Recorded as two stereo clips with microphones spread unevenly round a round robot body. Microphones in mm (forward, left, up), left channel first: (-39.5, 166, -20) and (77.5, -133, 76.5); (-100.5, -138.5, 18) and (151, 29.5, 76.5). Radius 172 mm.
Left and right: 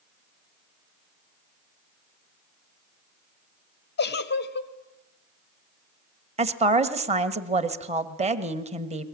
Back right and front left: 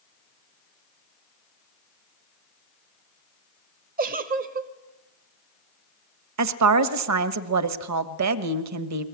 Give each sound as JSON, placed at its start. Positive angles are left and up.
{"t": 4.0, "sound": "a giggle", "azimuth_deg": 100, "distance_m": 1.1}
{"t": 6.4, "sound": "a woman speaking", "azimuth_deg": 10, "distance_m": 1.6}